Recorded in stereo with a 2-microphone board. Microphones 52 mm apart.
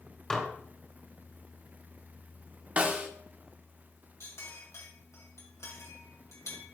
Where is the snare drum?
30° right (ahead or behind), 0.8 m.